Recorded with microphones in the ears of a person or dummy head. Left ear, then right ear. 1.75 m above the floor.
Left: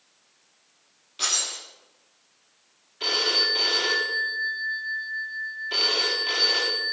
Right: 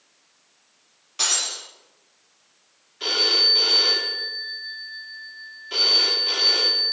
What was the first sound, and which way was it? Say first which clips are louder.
Breaking glass: right 3 dB; 45° right (ahead or behind).